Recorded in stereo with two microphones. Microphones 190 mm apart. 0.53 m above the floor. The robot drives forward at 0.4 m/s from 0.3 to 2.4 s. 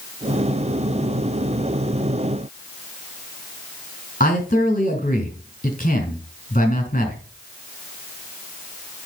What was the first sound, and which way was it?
A man speaking, 40° left (ahead or behind).